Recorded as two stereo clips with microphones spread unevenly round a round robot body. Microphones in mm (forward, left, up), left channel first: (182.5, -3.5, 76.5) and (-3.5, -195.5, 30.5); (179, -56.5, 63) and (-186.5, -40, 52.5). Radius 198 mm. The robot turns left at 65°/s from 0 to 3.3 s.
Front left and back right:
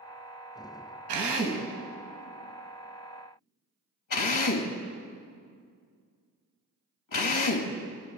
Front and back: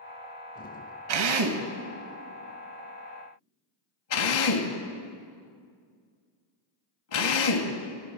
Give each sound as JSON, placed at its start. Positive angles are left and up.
{"t": 1.1, "sound": "a drill", "azimuth_deg": -165, "distance_m": 2.5}